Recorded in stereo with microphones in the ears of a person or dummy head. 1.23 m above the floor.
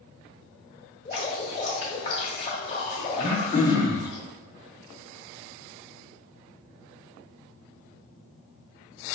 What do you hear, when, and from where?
1.1 s dripping: 30° left (ahead or behind), 1.2 m
3.2 s throat clearing: 25° left (ahead or behind), 0.9 m